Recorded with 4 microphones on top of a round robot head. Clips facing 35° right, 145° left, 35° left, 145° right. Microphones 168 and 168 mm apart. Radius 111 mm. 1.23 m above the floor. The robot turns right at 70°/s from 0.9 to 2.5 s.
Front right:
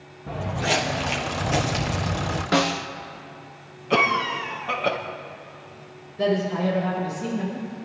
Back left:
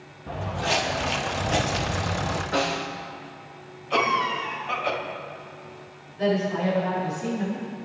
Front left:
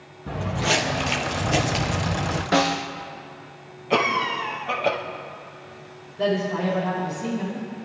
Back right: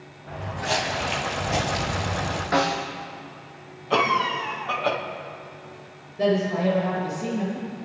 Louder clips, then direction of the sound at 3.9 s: Front right 2 dB, even; 35° right.